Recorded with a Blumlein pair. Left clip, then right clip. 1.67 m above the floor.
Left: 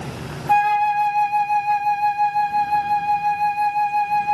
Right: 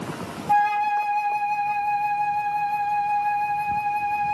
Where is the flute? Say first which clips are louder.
Left 3 dB; 70° left, 0.9 m.